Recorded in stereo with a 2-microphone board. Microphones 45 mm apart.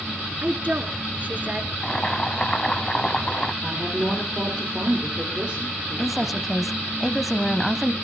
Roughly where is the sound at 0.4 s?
Right.